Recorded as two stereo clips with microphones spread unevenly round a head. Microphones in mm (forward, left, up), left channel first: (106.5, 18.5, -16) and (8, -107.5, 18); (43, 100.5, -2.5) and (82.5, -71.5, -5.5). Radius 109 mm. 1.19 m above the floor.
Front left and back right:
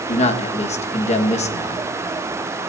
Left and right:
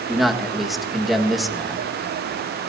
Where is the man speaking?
10° left, 1.6 m.